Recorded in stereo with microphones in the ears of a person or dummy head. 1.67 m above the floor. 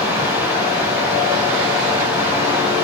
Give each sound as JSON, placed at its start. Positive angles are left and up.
{"t": 0.0, "sound": "running water", "side_deg": -10, "distance_m": 0.9}